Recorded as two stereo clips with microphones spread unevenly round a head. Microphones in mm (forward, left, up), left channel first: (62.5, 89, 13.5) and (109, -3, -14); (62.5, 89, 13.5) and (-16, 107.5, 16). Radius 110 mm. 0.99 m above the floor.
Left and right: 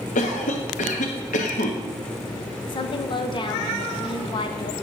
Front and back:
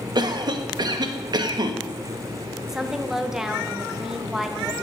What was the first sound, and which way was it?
A cough, 135° left.